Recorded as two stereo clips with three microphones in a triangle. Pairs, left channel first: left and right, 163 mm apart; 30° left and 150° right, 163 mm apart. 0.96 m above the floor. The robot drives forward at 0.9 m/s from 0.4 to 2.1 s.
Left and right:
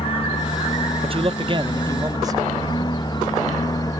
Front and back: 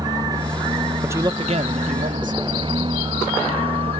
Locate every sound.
0.0 s a lawn mower: 145° left; by 4.0 s 155° left
1.0 s a man speaking: 80° right; by 2.4 s 155° right